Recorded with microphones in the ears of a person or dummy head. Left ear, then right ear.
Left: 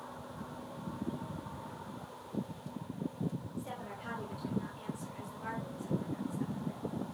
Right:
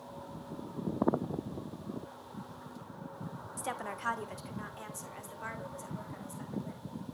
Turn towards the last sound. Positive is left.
turn(degrees=-45)  # may be behind; listen again after turning